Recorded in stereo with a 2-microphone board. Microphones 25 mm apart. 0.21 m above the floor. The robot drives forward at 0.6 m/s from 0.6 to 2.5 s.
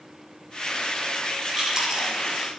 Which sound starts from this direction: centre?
Chewing, at 1.6 s.